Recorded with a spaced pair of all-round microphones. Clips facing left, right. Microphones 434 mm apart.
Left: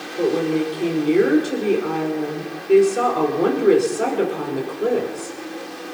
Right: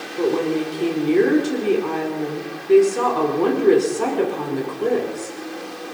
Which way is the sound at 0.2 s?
10° right (ahead or behind).